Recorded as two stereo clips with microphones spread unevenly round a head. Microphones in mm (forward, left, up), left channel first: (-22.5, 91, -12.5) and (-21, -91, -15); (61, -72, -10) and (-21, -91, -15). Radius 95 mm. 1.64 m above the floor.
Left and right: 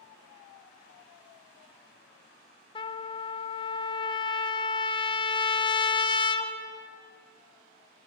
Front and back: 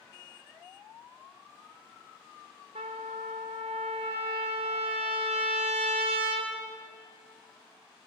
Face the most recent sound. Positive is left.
turn(degrees=155)